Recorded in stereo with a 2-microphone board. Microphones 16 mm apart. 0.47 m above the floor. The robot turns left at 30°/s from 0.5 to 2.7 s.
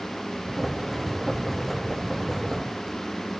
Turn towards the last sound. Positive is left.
No sound to turn to.